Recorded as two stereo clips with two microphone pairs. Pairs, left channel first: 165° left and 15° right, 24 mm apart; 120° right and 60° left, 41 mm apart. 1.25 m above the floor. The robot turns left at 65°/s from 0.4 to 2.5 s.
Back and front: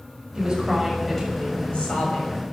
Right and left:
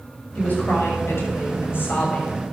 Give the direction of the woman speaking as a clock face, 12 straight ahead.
2 o'clock.